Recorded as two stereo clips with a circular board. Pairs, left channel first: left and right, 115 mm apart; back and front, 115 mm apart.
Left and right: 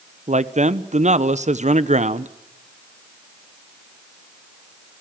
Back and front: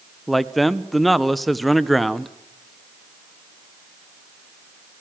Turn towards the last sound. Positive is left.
turn(degrees=-90)